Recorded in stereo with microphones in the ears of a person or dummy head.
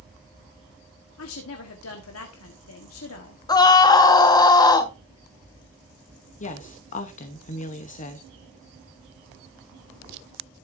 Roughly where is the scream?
Left.